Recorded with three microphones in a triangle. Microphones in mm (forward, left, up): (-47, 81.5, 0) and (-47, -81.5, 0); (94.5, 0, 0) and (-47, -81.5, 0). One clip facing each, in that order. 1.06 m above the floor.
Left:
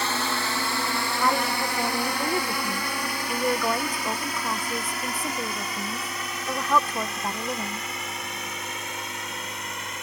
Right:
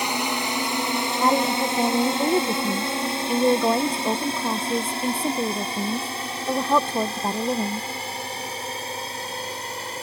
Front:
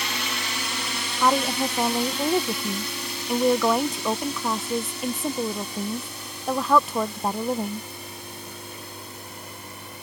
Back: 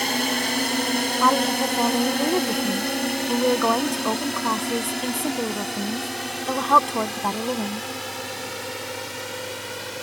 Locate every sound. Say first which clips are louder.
0.0 s a drone: right 2 dB, back 8 dB; 160° right; by 10.0 s 150° right
1.2 s a woman speaking: right 5 dB, even; 55° right